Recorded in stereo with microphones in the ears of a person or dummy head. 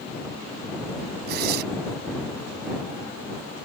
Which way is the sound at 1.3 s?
55° right (ahead or behind).